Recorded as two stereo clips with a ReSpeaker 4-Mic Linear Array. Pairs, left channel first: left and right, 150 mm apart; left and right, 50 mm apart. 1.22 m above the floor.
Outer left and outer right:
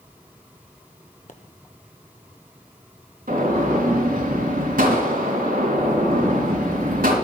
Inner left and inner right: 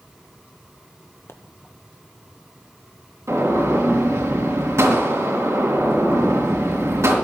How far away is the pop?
About 1.2 m.